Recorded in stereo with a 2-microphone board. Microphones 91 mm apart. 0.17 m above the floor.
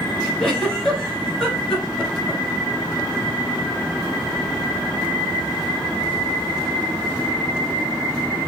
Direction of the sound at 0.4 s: 5° left (ahead or behind).